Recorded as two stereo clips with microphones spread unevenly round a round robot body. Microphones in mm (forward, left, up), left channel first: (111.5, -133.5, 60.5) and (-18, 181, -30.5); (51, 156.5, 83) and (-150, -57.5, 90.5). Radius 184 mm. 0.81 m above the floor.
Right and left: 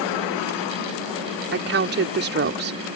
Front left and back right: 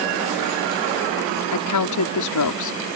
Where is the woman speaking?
60° left.